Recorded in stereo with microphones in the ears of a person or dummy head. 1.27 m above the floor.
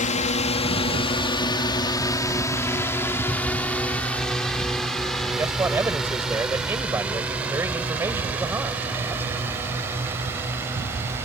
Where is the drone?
35° left (ahead or behind); by 11.2 s 15° right (ahead or behind).